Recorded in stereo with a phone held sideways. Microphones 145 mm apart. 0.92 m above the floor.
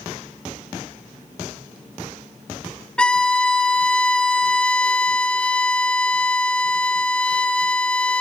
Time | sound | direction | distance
3.0 | a violin | 5° left (ahead or behind) | 1.0 m